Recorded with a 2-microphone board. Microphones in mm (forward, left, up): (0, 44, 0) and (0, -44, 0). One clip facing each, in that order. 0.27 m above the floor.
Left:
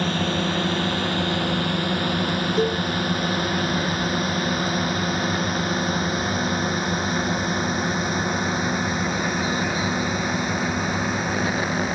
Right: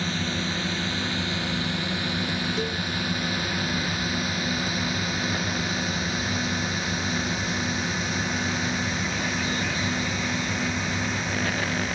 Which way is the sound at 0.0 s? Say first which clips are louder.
Left 6 dB; 60° left (ahead or behind).